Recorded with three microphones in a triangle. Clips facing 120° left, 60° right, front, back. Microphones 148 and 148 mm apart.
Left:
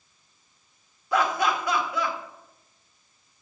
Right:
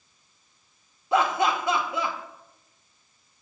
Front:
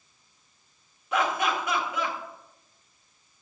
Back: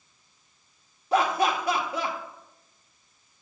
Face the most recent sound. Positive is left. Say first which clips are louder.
# right 1 dB, back 3 dB
turn(degrees=-125)